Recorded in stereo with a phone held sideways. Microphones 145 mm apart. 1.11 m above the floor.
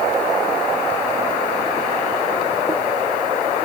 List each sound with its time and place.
Only background noise.